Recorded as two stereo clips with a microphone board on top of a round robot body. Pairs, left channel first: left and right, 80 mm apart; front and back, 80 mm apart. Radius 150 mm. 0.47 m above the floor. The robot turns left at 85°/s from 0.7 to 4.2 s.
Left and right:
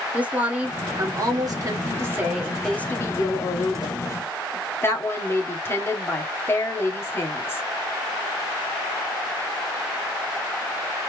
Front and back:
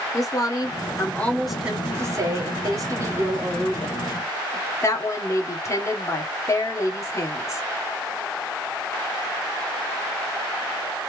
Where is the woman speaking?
25° right, 1.8 m; by 7.6 s 40° left, 1.8 m.